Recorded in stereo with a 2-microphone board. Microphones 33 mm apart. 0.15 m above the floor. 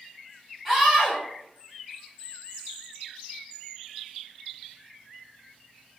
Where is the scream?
5° right (ahead or behind), 1.2 m.